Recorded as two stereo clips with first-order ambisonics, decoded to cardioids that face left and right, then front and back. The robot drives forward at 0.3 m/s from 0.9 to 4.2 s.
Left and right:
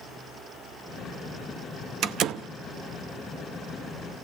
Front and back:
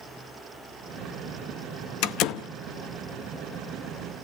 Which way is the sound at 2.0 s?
35° right.